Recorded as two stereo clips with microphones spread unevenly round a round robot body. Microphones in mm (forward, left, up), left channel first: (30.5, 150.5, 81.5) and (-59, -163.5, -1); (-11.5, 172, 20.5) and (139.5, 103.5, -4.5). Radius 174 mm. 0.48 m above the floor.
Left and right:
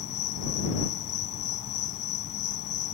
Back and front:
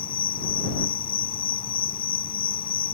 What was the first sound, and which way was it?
An insect, 125° left.